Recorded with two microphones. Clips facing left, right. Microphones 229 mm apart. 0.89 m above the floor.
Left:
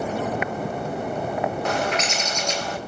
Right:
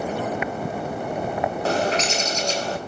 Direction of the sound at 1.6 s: 35° right (ahead or behind).